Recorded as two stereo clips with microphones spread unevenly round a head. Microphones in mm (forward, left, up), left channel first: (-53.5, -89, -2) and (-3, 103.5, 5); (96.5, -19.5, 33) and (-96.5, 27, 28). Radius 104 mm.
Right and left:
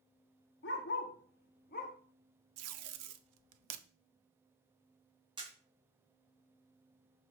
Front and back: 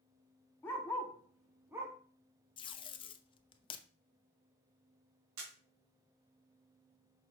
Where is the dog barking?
90° right, 1.5 m; by 1.9 s 125° right, 1.2 m.